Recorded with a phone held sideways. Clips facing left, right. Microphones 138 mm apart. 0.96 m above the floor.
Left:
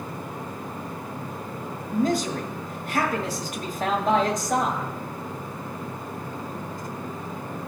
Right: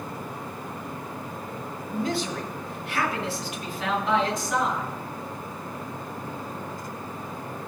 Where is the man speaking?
45° left (ahead or behind), 1.5 m.